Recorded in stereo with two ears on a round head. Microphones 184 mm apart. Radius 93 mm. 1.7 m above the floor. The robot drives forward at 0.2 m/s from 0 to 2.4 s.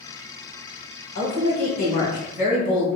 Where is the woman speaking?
50° left (ahead or behind), 1.1 m; by 2.9 s 40° left (ahead or behind), 1.2 m.